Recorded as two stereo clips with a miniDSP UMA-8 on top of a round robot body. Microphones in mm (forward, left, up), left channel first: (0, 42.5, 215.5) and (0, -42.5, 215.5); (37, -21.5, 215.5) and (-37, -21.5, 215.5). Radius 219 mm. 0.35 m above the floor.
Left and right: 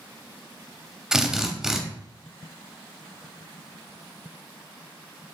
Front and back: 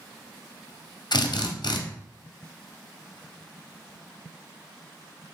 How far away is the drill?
About 0.7 m.